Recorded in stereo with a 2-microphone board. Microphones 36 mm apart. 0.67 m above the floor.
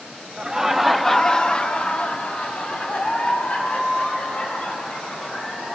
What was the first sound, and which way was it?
Laughter, 20° right (ahead or behind).